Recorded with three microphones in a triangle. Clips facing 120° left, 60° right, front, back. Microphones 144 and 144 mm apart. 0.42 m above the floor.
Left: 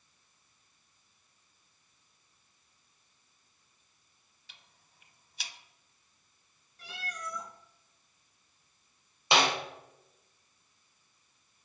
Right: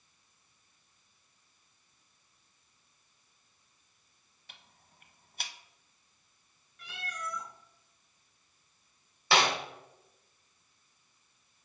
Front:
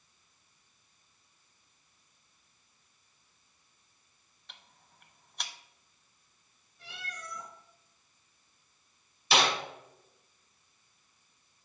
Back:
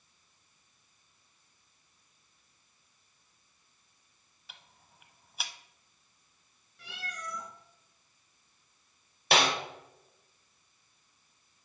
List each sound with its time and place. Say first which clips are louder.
4.5 s ticking: right 4 dB, even; 95° right, 0.6 m
6.8 s a cat meowing: right 1 dB, back 3 dB; 175° left, 1.9 m
9.3 s a snare drum: even, back 1 dB; 175° right, 1.7 m